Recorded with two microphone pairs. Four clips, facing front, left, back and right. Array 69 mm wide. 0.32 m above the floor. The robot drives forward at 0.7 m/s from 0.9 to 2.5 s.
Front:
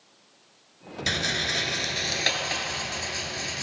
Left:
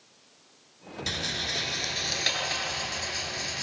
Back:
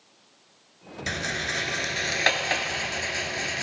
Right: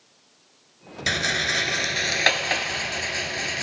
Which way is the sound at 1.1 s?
85° right.